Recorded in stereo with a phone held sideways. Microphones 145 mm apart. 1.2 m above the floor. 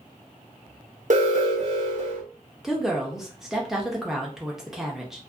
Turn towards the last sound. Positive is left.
turn(degrees=0)  # may be behind; listen again after turning